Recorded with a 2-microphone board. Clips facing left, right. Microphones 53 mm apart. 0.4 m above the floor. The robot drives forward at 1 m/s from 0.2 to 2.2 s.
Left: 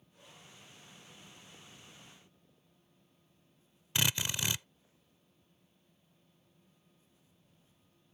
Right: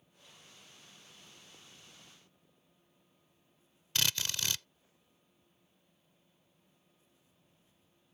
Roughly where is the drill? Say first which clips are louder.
Left 2 dB; centre.